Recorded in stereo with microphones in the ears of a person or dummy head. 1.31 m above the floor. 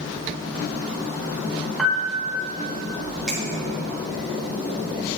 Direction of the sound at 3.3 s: Centre (ahead or behind).